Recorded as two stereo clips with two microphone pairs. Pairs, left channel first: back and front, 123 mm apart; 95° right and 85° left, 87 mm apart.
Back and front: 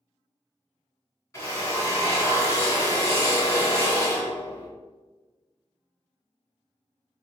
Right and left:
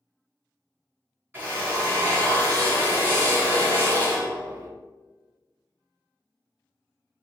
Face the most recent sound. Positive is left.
turn(degrees=130)